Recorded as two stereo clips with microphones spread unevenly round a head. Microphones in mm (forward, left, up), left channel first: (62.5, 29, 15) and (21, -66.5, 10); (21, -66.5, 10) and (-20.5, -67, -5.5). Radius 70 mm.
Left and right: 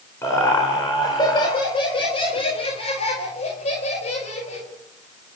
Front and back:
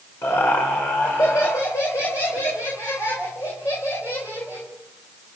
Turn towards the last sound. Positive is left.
turn(degrees=60)